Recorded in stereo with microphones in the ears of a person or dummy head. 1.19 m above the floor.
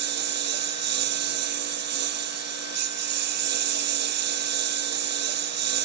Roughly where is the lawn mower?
Right.